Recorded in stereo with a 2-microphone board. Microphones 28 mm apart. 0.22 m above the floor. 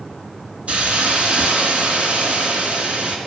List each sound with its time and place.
0.7 s a hiss: 45° right (ahead or behind), 2.5 m